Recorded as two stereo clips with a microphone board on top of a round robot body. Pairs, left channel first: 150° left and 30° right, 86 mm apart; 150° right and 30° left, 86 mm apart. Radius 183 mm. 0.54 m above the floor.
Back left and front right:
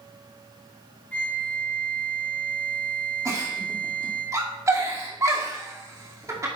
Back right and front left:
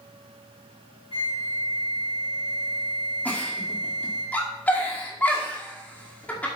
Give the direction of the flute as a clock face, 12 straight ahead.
5 o'clock.